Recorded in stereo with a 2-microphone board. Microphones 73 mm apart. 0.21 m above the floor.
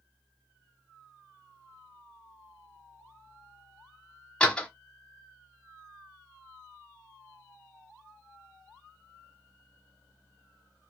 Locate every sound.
4.4 s a door slam: 10° left (ahead or behind), 0.9 m